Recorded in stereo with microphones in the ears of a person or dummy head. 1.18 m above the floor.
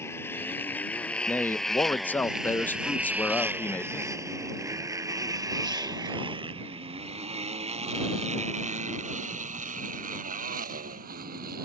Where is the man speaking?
10° left (ahead or behind).